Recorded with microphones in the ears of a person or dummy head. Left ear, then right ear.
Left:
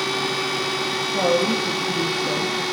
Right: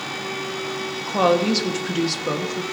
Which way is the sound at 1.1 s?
40° right (ahead or behind).